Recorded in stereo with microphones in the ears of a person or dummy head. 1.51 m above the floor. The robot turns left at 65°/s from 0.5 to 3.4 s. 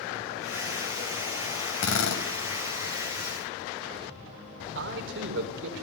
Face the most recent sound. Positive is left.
turn(degrees=-70)  # may be behind; listen again after turning